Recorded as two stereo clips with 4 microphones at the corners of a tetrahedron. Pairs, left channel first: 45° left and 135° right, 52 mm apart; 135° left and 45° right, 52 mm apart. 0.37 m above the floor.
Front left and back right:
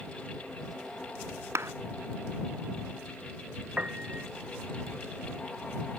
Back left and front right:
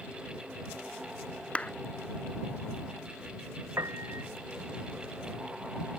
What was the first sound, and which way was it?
A clap, 160° right.